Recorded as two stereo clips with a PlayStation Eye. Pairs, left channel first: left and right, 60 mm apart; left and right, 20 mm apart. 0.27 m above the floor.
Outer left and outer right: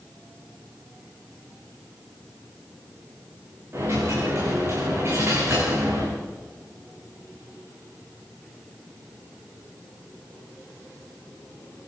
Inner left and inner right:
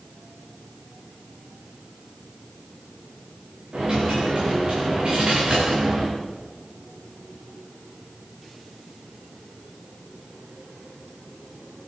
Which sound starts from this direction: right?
A dropped coin, at 3.7 s.